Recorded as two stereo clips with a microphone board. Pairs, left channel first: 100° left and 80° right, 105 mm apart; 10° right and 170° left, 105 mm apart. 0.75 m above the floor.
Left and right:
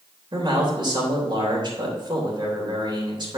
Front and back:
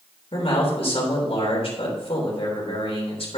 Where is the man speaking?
35° right, 3 m.